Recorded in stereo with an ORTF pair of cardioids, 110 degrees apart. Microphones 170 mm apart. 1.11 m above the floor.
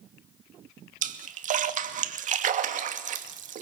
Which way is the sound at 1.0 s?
50° right.